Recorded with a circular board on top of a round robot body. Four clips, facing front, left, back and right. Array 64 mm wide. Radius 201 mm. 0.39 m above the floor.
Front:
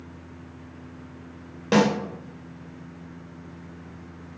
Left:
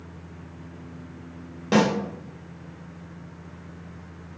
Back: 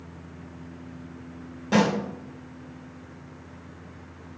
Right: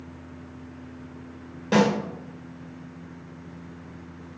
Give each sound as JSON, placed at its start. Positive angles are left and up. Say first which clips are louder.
{"t": 1.7, "sound": "a snare drum", "louder": "even, front 2 dB", "azimuth_deg": 25, "distance_m": 1.3}